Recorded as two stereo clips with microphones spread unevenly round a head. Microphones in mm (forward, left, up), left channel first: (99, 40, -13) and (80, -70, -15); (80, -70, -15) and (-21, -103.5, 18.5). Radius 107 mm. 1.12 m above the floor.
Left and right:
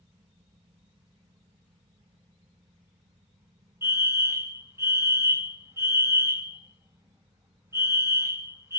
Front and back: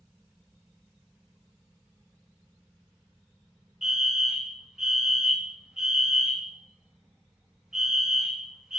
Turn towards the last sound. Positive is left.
turn(degrees=-55)